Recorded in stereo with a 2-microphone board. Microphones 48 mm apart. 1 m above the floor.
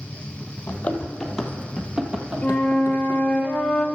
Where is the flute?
25° left (ahead or behind), 1.3 m.